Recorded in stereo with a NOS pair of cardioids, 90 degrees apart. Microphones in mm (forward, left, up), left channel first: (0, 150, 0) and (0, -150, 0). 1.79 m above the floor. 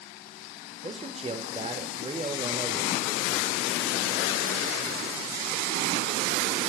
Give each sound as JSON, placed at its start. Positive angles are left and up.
{"t": 0.8, "sound": "a man speaking", "azimuth_deg": -20, "distance_m": 0.9}